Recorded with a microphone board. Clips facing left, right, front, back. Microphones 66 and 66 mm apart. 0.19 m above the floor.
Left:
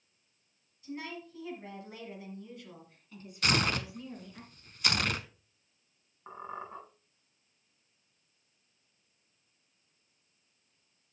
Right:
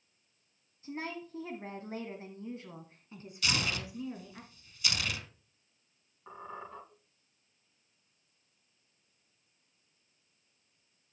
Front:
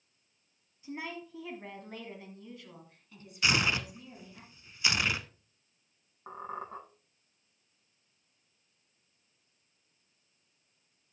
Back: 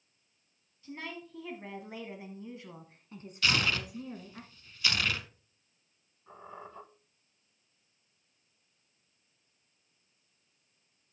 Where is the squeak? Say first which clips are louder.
Left 3 dB, front 7 dB; 20° left, 6.5 m.